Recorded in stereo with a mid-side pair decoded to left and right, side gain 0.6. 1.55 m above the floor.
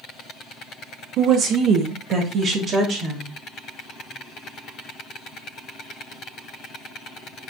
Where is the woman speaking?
55° right, 0.7 m; by 3.4 s 50° right, 1.8 m.